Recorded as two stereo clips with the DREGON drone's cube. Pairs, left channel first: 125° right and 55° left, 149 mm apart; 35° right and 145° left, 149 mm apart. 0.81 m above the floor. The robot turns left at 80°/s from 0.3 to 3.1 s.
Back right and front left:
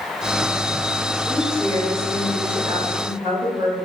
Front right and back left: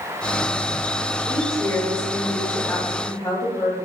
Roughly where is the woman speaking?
Behind.